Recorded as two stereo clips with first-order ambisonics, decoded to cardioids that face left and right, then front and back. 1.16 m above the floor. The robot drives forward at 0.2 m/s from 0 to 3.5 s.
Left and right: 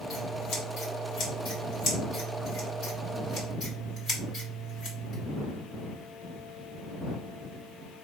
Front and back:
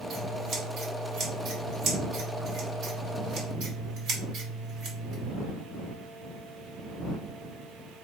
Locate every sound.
0.1 s scissors: 125° left, 1.9 m; by 5.2 s 140° left, 2.5 m